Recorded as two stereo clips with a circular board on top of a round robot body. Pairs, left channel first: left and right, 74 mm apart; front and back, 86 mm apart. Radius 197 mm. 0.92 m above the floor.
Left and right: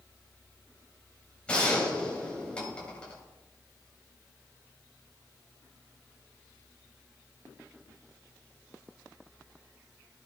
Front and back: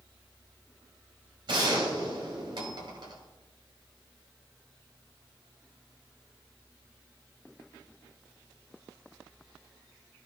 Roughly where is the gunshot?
Behind.